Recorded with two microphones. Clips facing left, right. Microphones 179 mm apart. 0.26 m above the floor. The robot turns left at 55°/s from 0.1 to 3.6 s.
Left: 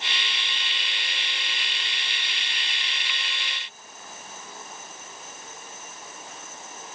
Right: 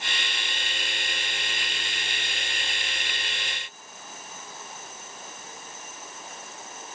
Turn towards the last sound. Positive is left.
No sound to turn to.